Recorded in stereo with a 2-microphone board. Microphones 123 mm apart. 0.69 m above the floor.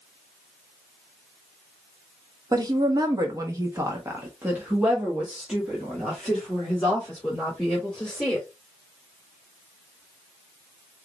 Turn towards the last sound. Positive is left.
turn(degrees=5)  # may be behind; listen again after turning